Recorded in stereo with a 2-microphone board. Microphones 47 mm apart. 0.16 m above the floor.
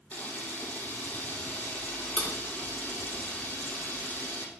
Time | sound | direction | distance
0.1 | a camera shutter | 35° left (ahead or behind) | 3 m